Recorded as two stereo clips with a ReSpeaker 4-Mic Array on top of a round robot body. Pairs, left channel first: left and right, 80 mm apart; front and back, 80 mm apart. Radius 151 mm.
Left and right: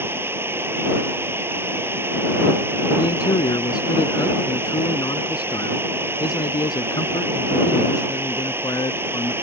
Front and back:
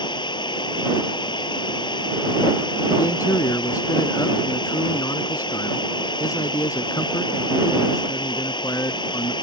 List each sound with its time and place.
0.0 s running water: 25° right
3.0 s a man speaking: 50° left